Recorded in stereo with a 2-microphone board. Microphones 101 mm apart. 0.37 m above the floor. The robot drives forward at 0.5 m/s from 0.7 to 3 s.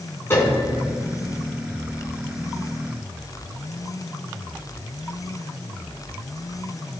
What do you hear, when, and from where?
0.3 s a piano: 25° left (ahead or behind), 2.5 m